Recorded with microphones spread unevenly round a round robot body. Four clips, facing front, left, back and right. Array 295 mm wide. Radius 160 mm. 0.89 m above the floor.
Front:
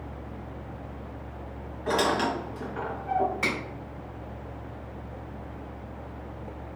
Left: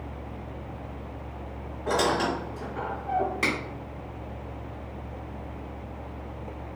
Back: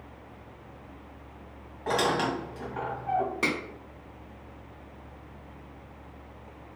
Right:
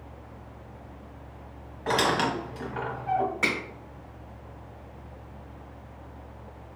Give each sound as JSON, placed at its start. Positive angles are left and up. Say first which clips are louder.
{"t": 1.9, "sound": "a squeak", "louder": "even, front 1 dB", "azimuth_deg": -115, "distance_m": 1.8}
{"t": 3.4, "sound": "a finger snap", "louder": "left 1 dB, back 1 dB", "azimuth_deg": 165, "distance_m": 2.5}